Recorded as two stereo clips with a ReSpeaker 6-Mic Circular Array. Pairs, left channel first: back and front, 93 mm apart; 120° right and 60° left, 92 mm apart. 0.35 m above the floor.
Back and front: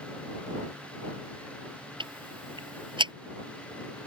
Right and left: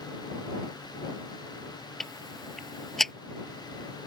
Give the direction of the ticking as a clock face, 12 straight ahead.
1 o'clock.